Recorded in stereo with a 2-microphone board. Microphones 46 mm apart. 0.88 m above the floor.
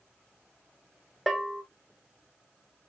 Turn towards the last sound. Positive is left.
turn(degrees=0)  # may be behind; listen again after turning